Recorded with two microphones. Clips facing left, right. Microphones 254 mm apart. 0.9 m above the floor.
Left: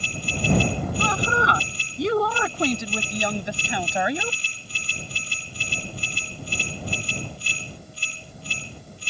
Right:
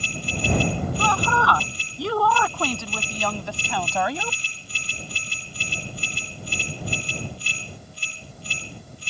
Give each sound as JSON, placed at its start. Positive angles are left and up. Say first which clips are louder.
{"t": 1.0, "sound": "a woman speaking", "louder": "left 2 dB", "side_deg": 20}